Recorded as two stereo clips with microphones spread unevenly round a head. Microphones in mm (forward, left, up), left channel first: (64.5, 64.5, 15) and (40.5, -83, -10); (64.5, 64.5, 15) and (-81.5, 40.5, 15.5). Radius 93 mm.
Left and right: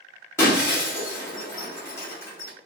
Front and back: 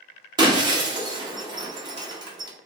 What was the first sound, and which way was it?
Breaking glass, 140° left.